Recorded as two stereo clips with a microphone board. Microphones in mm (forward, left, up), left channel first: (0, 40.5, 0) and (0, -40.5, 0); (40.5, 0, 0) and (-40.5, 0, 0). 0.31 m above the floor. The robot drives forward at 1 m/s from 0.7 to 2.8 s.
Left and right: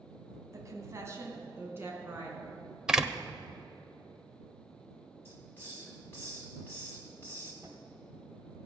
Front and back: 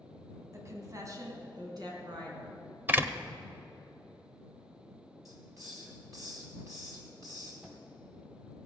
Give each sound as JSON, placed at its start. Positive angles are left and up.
{"t": 0.5, "sound": "a woman speaking", "azimuth_deg": -135, "distance_m": 2.0}
{"t": 2.9, "sound": "a door slam", "azimuth_deg": -160, "distance_m": 0.6}
{"t": 5.2, "sound": "a hiss", "azimuth_deg": 145, "distance_m": 3.0}
{"t": 7.6, "sound": "a cupboard door", "azimuth_deg": -125, "distance_m": 1.8}